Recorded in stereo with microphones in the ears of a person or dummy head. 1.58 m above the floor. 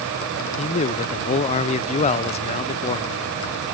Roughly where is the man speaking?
Left.